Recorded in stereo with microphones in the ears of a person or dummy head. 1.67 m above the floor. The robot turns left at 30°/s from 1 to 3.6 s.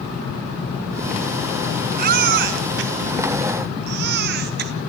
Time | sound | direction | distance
2.0 | a baby crying | 50° right (ahead or behind) | 0.8 m